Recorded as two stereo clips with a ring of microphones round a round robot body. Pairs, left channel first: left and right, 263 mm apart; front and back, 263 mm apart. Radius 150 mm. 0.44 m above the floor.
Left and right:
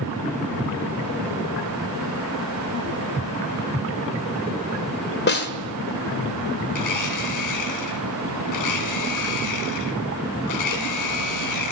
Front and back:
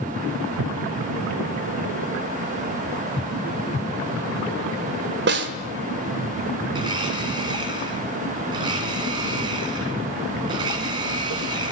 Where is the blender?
105° left, 2 m.